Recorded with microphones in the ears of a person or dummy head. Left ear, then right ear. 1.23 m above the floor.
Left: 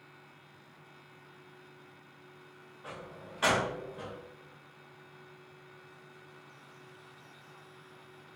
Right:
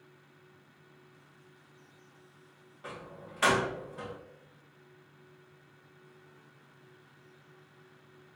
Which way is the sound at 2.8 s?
30° right (ahead or behind).